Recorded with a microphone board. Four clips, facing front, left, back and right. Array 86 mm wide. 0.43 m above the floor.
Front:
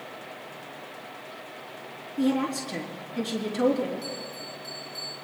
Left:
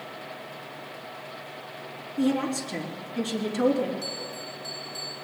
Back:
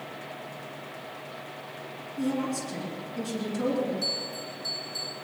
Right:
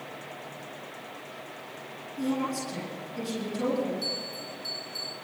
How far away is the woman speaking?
About 4.5 m.